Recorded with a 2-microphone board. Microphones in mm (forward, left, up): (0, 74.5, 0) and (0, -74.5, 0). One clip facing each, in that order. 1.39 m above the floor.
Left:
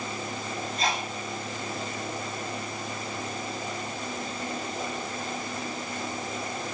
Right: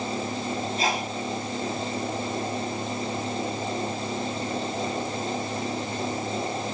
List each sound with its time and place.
0.8 s a sneeze: 5° right (ahead or behind), 8 m